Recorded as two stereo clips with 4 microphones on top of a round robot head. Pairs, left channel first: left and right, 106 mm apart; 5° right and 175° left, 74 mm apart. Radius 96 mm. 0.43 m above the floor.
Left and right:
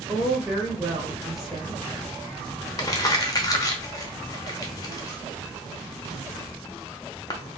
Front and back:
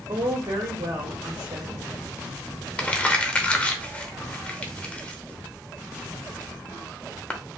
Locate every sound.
0.1 s a woman speaking: 175° right, 1.5 m
2.8 s crumpling: 60° left, 0.8 m